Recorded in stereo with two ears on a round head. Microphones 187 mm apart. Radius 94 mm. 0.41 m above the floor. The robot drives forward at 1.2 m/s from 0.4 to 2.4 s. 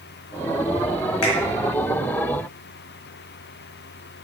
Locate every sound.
1.2 s a finger snap: 80° left, 3.5 m; by 1.3 s 75° left (ahead or behind), 3.5 m